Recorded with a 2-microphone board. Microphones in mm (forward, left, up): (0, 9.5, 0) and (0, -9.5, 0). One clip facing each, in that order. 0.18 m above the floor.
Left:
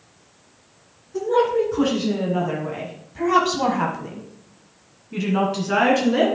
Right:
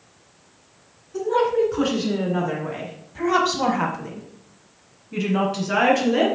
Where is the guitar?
No guitar in this recording.